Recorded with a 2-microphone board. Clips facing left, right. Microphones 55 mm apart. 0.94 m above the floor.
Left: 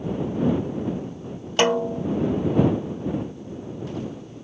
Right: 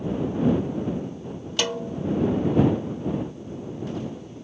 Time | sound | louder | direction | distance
1.6 | a snare drum | left 7 dB | 35° left (ahead or behind) | ?